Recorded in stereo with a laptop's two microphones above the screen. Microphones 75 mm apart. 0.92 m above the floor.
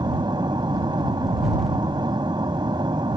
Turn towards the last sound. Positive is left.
turn(degrees=-80)